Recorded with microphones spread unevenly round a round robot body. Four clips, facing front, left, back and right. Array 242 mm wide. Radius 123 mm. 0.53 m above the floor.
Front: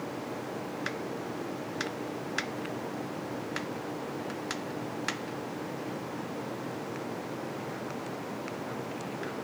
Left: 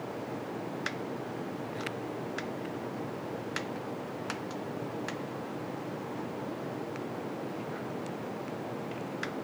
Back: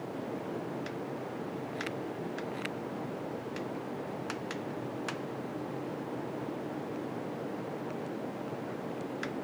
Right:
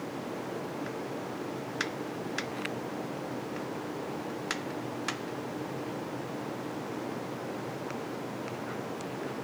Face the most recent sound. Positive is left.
No sound to turn to.